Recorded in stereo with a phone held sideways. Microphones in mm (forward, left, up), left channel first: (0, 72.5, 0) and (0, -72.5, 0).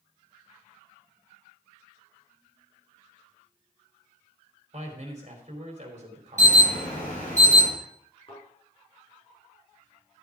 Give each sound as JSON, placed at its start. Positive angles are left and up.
{"t": 4.7, "sound": "a man speaking", "side_deg": -50, "distance_m": 3.5}
{"t": 6.4, "sound": "an alarm", "side_deg": 55, "distance_m": 7.5}
{"t": 8.3, "sound": "a thud", "side_deg": 40, "distance_m": 5.5}